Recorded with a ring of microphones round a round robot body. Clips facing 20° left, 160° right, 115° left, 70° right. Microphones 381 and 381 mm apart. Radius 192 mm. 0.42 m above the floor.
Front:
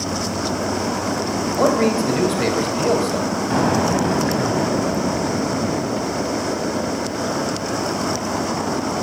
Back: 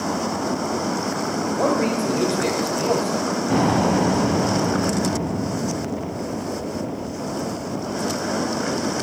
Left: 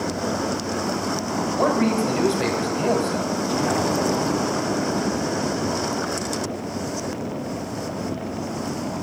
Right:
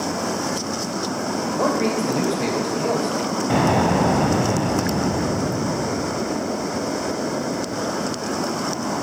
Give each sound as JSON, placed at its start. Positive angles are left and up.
{"t": 1.6, "sound": "a man speaking", "azimuth_deg": 60, "distance_m": 2.5}
{"t": 3.5, "sound": "an explosion", "azimuth_deg": -75, "distance_m": 1.3}